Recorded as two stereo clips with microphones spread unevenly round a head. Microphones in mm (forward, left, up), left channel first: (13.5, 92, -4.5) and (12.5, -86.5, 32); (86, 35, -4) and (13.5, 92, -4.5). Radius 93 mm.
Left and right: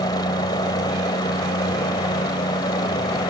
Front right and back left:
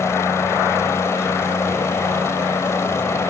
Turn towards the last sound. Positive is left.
turn(degrees=20)